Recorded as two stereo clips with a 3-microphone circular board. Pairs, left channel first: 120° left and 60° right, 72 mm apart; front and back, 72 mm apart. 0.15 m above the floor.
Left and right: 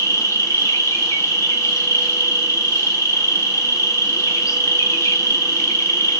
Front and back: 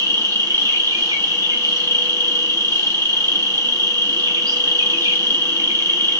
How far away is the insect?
About 0.8 m.